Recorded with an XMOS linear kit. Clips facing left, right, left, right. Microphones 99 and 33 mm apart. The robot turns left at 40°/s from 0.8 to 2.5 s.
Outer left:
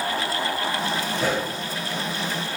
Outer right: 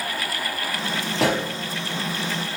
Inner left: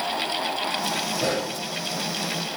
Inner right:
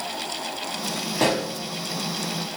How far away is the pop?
About 4.5 m.